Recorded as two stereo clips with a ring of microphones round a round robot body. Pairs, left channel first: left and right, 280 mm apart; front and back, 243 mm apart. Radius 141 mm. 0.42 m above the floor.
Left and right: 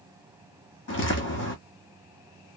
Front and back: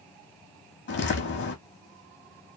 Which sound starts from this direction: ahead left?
Footsteps, at 0.9 s.